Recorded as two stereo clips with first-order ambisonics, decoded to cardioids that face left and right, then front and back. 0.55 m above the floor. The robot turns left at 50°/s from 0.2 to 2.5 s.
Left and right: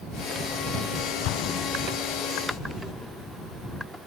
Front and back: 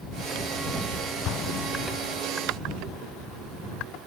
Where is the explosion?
45° left; by 2.2 s straight ahead.